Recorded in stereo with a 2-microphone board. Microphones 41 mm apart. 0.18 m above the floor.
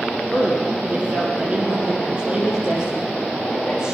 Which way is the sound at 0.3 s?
30° right (ahead or behind).